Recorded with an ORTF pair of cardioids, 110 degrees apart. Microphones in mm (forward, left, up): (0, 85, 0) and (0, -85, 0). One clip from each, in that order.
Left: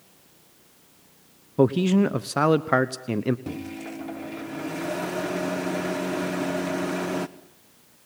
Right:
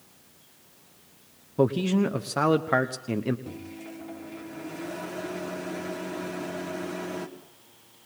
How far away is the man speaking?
About 1.1 m.